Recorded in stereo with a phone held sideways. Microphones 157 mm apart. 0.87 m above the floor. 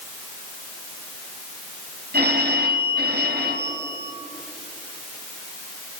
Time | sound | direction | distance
2.1 | a phone ringing | 75° right (ahead or behind) | 3 m